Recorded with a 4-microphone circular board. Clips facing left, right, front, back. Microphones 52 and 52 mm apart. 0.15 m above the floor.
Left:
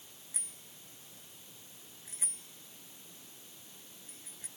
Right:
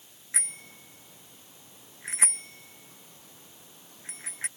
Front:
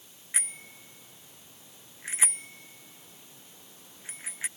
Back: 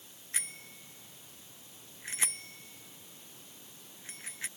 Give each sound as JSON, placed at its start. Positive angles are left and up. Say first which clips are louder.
{"t": 0.3, "sound": "a bicycle bell", "louder": "right 17 dB, front 4 dB", "azimuth_deg": -70}